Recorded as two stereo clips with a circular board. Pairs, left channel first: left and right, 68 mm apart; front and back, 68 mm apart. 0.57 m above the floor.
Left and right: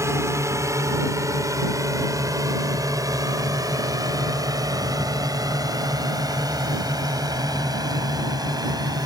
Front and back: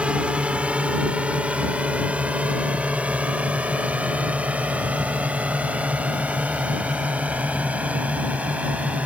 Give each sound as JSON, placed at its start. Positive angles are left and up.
{"t": 0.0, "sound": "a drone", "azimuth_deg": -110}